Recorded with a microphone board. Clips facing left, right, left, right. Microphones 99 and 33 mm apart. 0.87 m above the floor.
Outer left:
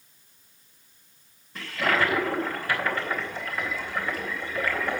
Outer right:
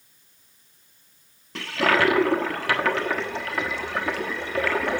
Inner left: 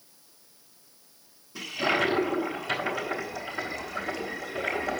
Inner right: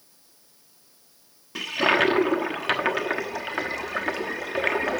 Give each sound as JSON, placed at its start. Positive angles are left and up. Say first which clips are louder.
{"t": 1.6, "sound": "a toilet flushing", "louder": "outer right 4 dB, inner right 5 dB", "side_deg": -70, "distance_m": 1.1}